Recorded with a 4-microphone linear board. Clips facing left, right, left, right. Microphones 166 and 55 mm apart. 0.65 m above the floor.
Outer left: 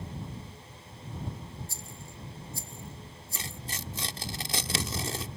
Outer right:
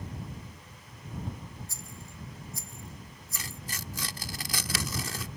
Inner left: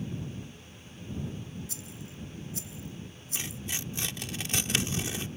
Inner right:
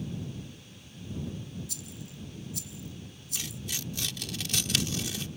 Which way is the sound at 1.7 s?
30° left (ahead or behind).